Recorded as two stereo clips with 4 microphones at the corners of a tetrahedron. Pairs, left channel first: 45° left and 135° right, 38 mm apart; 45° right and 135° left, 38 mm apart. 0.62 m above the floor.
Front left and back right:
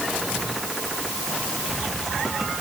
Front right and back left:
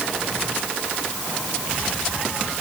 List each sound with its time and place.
Only background noise.